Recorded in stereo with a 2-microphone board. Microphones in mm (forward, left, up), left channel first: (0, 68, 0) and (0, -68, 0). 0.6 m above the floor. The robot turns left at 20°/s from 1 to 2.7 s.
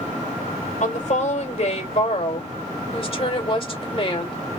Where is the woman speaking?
85° left, 2.5 m; by 4.6 s 50° left, 2.5 m.